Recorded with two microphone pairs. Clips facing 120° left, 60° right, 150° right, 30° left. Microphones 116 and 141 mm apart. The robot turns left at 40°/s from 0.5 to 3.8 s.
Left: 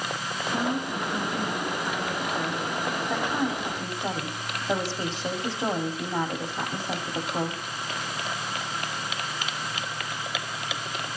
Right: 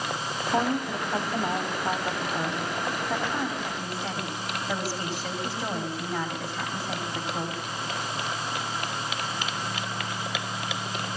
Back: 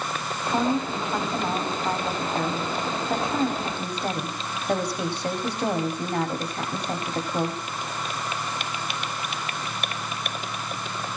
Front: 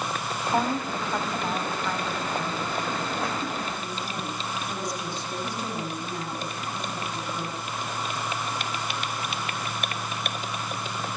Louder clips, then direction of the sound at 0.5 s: Right 2 dB, back 2 dB; 40° right.